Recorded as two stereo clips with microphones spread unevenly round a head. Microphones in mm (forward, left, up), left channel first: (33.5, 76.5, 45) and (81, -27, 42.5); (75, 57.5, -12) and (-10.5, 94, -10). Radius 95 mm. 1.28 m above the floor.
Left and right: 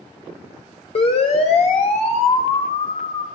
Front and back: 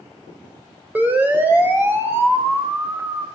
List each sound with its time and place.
0.9 s a siren: 85° left, 6.5 m; by 3.2 s 100° left, 8 m